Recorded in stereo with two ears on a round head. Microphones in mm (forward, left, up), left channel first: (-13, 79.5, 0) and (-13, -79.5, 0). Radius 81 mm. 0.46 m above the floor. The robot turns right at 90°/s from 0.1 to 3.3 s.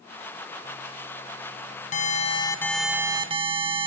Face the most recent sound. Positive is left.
turn(degrees=-135)